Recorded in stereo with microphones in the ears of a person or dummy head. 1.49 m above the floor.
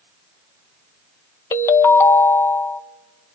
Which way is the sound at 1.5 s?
20° left (ahead or behind).